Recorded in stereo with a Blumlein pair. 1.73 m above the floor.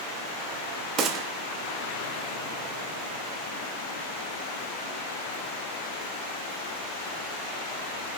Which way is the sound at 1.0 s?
30° right.